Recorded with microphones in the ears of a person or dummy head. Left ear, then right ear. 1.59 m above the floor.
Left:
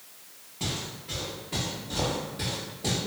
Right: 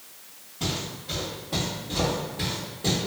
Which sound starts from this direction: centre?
Footsteps, at 0.6 s.